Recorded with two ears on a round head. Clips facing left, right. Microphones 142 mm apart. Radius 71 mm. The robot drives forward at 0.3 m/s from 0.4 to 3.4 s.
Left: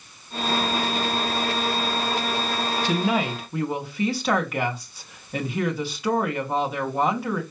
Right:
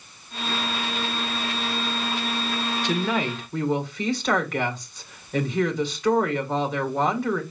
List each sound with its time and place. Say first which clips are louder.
2.8 s a woman speaking: left 2 dB; 5° left (ahead or behind), 1.2 m